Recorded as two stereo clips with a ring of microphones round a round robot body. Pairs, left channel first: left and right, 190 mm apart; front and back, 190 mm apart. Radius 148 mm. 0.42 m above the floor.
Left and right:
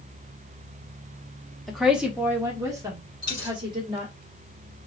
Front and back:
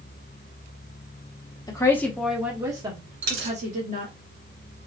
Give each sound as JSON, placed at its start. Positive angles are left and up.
{"t": 1.7, "sound": "a woman speaking", "azimuth_deg": 0, "distance_m": 1.2}
{"t": 3.2, "sound": "a dropped coin", "azimuth_deg": 165, "distance_m": 1.8}